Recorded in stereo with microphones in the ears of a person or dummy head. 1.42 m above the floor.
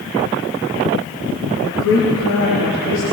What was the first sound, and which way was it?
A woman speaking, 70° left (ahead or behind).